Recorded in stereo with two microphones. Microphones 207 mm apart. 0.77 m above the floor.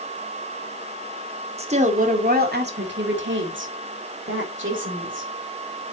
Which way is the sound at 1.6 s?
30° right (ahead or behind).